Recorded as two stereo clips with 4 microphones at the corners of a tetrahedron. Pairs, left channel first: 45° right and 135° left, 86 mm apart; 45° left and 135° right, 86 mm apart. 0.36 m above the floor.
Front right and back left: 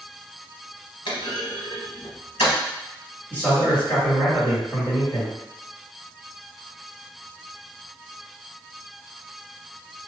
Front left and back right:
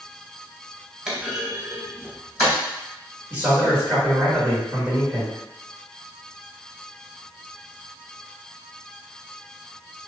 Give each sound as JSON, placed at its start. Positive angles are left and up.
{"t": 1.1, "sound": "a clunk", "azimuth_deg": -50, "distance_m": 0.9}
{"t": 3.3, "sound": "a man speaking", "azimuth_deg": -100, "distance_m": 1.8}